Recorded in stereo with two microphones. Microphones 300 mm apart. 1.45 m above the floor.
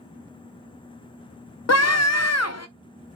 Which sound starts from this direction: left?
A scream, at 1.7 s.